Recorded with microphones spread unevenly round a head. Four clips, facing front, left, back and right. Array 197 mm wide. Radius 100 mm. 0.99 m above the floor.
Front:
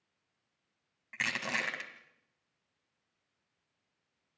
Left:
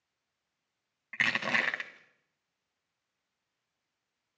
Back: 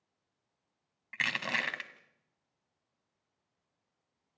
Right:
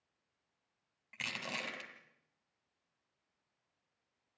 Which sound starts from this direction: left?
Crushing, at 1.1 s.